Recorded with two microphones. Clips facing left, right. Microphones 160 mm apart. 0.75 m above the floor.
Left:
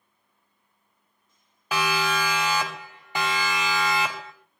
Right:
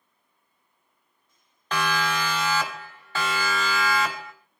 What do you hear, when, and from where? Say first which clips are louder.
1.7 s a siren: left 1 dB; 10° left (ahead or behind), 4.5 m; by 4.3 s 25° left (ahead or behind), 5 m